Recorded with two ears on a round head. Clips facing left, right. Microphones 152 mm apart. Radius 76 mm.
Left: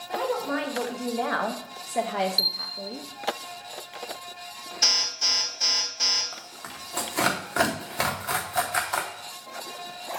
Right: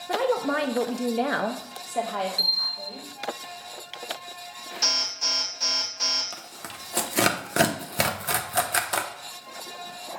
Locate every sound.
0.1 s a woman speaking: 65° right (ahead or behind), 1.0 m; by 3.1 s 45° left (ahead or behind), 0.9 m
2.4 s a bell: 50° left (ahead or behind), 1.2 m
4.8 s an alarm: 5° left (ahead or behind), 4 m
6.3 s tearing paper: 35° right (ahead or behind), 0.8 m